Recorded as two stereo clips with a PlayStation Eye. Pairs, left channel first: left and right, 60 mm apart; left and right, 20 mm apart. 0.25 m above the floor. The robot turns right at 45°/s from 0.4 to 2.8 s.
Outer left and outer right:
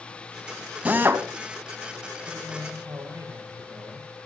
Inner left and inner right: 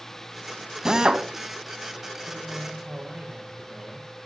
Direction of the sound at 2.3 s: 35° right (ahead or behind).